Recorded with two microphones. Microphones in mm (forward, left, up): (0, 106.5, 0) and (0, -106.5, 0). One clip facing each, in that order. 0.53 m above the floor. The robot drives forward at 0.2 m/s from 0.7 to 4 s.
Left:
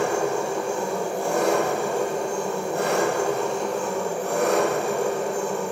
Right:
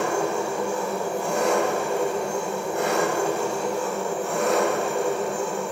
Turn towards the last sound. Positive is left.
turn(degrees=60)  # may be behind; listen again after turning